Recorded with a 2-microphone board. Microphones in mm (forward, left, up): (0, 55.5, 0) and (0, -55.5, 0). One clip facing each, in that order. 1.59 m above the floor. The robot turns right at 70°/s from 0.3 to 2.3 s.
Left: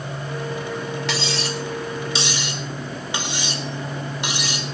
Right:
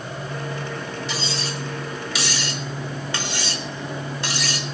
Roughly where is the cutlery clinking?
Left.